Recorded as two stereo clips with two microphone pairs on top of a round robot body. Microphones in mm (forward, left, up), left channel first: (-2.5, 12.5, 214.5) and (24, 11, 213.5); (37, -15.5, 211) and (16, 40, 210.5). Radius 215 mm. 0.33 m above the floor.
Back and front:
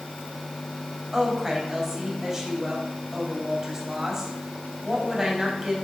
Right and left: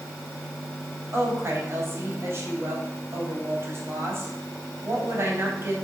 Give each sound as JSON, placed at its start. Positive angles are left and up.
{"t": 1.1, "sound": "a woman speaking", "azimuth_deg": 70, "distance_m": 3.5}